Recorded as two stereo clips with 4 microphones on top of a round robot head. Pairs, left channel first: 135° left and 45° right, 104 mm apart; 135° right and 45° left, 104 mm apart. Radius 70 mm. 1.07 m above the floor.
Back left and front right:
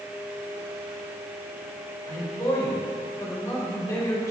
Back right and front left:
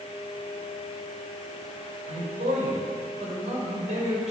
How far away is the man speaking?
About 5 m.